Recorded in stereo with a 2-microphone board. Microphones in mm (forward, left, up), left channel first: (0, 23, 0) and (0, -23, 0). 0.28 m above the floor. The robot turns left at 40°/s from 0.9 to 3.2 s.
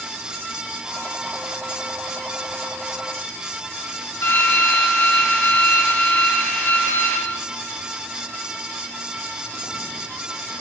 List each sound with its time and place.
4.2 s a drill: 70° left (ahead or behind), 9 m